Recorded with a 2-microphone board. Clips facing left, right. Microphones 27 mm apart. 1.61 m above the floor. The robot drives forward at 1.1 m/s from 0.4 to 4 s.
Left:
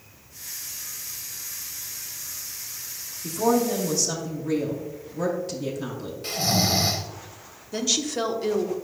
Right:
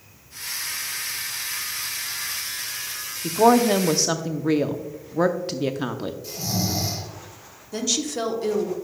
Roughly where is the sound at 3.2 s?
Right.